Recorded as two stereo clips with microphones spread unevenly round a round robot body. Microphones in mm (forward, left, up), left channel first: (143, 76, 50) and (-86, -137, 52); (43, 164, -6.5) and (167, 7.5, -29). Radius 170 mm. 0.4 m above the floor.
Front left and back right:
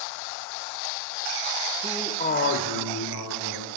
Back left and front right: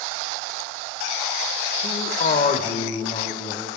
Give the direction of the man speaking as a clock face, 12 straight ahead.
7 o'clock.